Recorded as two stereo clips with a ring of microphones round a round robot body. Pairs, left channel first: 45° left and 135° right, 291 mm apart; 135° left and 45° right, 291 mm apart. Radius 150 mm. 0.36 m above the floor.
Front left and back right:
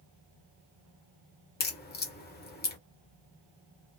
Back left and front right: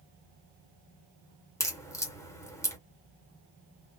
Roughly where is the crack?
Ahead left.